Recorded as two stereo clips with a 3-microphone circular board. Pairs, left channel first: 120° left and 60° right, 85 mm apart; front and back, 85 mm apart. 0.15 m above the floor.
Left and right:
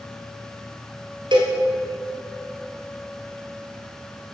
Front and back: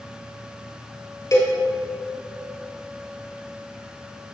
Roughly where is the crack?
No crack in this recording.